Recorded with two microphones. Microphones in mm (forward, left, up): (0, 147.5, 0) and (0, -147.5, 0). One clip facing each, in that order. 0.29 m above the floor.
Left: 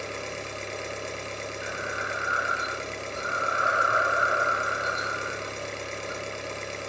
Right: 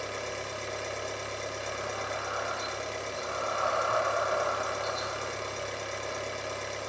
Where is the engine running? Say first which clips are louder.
Left 1 dB; 30° left (ahead or behind), 2 m.